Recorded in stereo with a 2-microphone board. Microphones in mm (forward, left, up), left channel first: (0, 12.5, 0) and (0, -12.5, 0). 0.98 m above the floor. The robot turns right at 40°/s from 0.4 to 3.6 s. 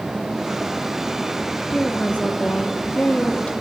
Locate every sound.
1.7 s a woman speaking: 45° left, 1.4 m; by 3.5 s 115° left, 1.4 m